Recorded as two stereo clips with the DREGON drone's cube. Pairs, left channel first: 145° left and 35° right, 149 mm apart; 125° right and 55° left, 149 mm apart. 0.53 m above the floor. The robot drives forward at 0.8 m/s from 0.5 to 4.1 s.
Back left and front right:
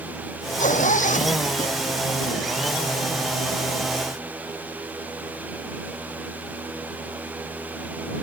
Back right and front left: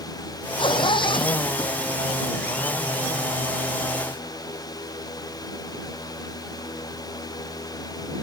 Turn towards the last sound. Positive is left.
turn(degrees=180)